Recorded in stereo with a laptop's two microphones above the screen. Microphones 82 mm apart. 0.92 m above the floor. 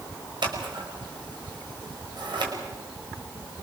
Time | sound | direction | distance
0.4 | scissors | 65° right (ahead or behind) | 5.5 m